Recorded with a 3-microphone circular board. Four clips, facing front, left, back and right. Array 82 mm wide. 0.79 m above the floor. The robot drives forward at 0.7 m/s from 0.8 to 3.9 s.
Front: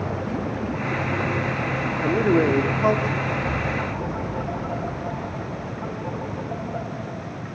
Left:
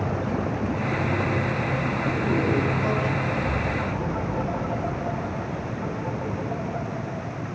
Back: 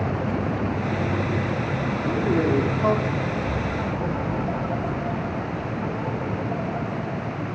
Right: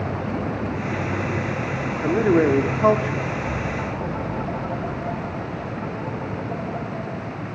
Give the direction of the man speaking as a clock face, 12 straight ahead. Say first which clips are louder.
Right 9 dB, front 4 dB; 2 o'clock.